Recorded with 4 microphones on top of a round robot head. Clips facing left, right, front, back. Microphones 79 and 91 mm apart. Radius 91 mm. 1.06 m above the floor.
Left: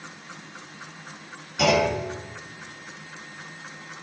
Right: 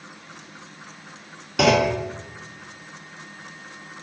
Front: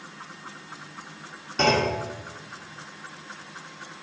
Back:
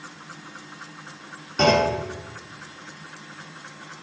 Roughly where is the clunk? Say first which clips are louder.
Right 3 dB, back 3 dB; right.